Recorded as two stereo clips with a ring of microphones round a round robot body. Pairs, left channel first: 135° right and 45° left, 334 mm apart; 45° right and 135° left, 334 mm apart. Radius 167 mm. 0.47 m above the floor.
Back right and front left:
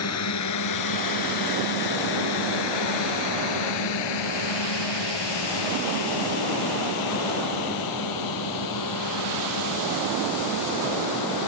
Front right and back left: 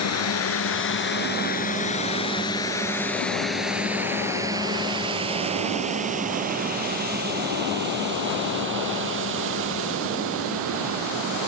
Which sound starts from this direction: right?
A drone, at 0.0 s.